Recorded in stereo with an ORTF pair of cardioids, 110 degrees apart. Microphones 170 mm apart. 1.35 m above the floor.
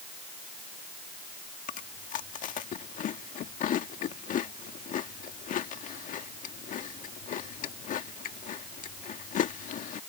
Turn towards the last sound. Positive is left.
turn(degrees=55)